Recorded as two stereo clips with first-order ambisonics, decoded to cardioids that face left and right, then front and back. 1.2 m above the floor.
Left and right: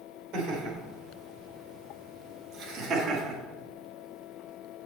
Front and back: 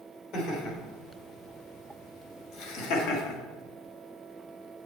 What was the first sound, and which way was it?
Laughter, 45° right.